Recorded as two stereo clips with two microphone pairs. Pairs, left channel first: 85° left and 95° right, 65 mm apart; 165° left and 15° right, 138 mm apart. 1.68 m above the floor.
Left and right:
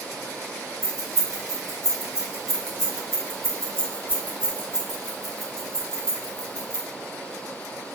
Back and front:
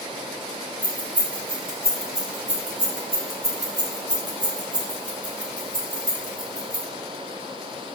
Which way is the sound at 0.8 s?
95° right.